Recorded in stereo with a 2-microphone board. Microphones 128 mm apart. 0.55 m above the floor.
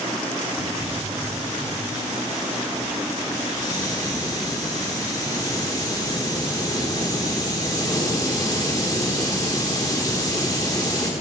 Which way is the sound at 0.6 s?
30° left (ahead or behind).